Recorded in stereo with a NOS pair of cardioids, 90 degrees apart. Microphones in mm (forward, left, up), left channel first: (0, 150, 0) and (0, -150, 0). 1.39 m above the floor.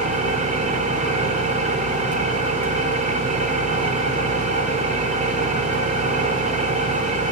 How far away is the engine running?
About 1.0 m.